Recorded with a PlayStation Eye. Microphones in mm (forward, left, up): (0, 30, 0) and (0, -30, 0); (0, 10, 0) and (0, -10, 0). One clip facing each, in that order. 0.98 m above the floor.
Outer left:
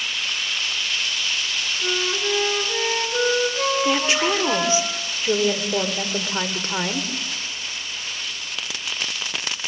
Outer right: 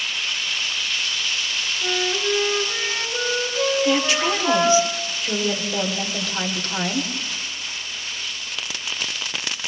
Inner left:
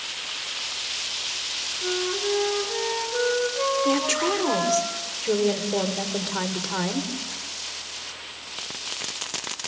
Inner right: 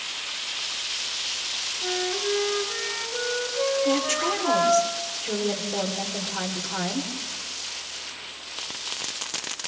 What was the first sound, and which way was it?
A flute, 5° left (ahead or behind).